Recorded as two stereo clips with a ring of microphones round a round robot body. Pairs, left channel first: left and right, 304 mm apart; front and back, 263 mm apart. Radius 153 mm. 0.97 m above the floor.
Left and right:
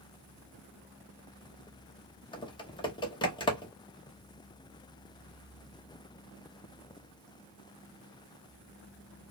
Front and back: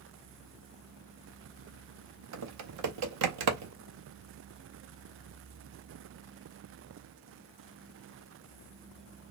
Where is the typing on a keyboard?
165° left, 0.7 m.